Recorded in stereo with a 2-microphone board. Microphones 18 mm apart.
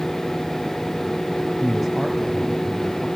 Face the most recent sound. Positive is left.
turn(degrees=15)  # may be behind; listen again after turning